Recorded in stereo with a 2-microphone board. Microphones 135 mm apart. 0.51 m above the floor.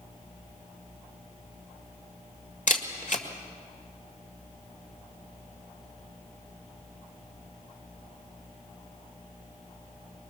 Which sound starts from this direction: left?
A camera shutter, at 2.7 s.